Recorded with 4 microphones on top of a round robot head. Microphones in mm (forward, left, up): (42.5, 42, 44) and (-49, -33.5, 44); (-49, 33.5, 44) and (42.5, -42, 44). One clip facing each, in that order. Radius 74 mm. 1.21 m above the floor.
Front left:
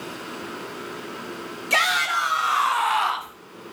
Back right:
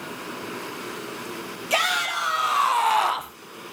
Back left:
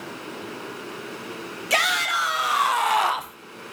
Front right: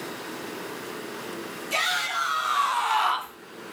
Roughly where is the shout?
Behind left.